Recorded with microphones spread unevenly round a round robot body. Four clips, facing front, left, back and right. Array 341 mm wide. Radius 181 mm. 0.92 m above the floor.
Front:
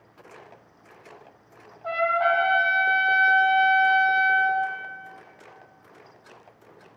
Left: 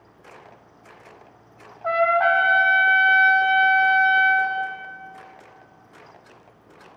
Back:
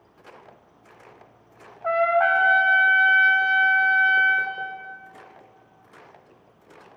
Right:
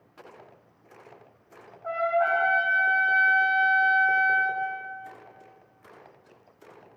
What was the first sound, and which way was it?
A trumpet, 120° left.